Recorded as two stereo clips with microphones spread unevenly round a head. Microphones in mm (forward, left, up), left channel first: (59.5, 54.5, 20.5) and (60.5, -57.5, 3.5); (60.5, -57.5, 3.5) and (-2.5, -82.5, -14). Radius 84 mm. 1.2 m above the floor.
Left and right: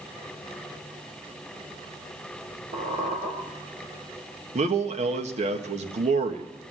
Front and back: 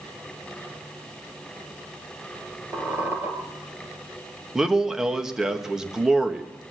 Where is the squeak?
95° right, 4 m.